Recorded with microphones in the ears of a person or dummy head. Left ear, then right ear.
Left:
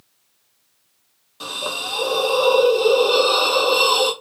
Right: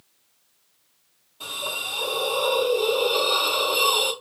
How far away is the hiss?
About 1.7 m.